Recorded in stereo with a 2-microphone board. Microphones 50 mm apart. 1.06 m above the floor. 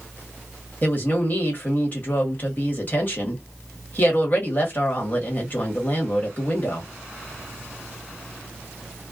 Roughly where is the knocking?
No knocking in this recording.